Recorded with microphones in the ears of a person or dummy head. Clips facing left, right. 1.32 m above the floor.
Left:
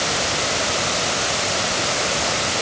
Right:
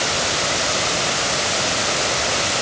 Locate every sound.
Only background noise.